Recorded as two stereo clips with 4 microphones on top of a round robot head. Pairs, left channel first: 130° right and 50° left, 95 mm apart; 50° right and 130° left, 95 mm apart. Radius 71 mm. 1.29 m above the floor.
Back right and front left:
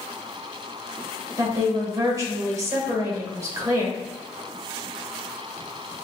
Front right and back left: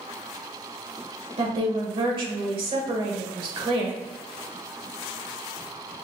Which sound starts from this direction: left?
A woman speaking, at 1.4 s.